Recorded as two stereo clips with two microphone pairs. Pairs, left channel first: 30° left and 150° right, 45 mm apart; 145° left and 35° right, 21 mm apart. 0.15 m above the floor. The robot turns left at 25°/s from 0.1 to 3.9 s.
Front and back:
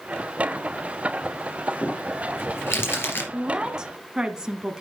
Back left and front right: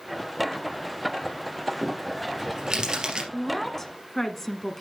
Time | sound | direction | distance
1.8 | crumpling | 40° left | 3.5 m
3.3 | a woman speaking | 155° right | 1.1 m